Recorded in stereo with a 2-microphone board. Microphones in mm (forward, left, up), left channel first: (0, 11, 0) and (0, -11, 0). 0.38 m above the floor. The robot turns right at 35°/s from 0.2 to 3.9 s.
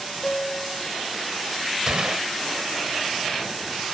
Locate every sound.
0.2 s a piano: 50° left (ahead or behind); by 0.9 s 45° left (ahead or behind)
1.9 s a gunshot: 45° right (ahead or behind); by 2.3 s 50° right (ahead or behind)